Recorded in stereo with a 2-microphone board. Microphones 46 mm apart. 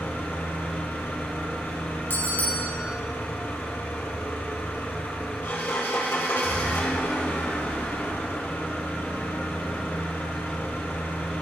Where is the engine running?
55° left (ahead or behind), 2.5 m.